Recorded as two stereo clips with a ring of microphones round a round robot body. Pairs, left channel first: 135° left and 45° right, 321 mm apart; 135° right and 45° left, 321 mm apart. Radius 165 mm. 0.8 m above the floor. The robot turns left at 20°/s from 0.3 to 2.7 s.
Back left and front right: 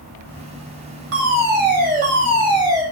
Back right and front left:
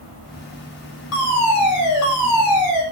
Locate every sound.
1.1 s a fire alarm: 95° right, 7 m; by 2.8 s 125° right, 7 m